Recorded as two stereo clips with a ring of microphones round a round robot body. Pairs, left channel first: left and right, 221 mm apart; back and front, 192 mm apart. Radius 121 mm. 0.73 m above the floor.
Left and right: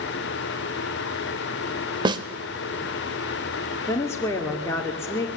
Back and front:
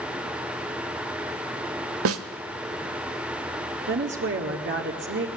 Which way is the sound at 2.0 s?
20° right.